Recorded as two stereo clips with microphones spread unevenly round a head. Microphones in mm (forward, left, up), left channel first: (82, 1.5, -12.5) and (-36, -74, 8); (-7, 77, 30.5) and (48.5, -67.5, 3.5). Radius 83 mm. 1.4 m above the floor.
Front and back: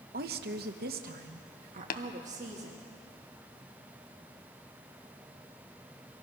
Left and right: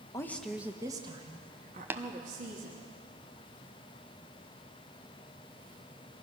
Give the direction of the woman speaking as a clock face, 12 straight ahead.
6 o'clock.